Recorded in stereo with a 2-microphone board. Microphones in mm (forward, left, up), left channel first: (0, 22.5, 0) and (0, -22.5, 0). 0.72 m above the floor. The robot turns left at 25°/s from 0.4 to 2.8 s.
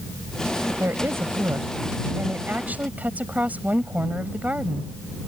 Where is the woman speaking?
85° right; by 4.9 s 140° right.